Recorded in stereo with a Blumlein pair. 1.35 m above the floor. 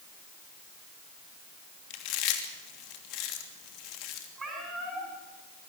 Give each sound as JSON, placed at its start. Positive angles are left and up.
{"t": 1.9, "sound": "chewing", "azimuth_deg": 40, "distance_m": 3.0}
{"t": 4.4, "sound": "a cat meowing", "azimuth_deg": -15, "distance_m": 7.5}